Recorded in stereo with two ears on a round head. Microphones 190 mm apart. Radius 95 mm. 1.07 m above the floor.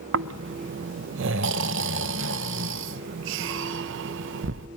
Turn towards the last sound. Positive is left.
turn(degrees=-60)  # may be behind; listen again after turning